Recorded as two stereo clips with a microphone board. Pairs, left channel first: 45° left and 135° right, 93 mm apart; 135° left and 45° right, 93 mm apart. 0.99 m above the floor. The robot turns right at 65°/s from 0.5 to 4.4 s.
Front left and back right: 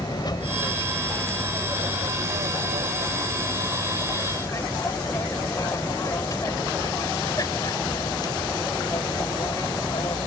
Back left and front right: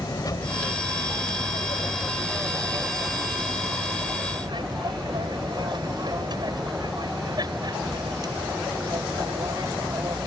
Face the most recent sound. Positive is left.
turn(degrees=5)